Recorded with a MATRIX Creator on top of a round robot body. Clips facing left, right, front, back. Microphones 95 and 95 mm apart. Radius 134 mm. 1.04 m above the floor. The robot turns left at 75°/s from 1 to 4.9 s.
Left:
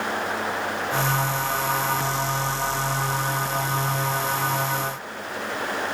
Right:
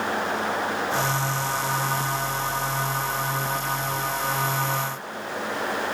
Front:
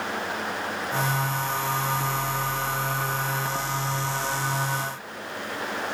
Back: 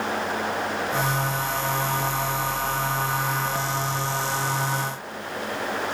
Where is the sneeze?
I don't hear a sneeze.